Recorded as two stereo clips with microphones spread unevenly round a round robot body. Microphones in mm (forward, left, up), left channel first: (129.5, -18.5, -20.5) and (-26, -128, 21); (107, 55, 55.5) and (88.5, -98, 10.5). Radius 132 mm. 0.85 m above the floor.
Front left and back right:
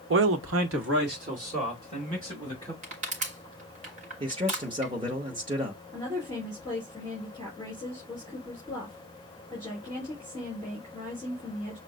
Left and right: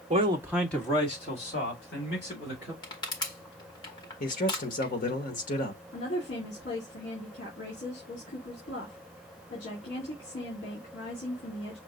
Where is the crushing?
160° left, 1.2 m.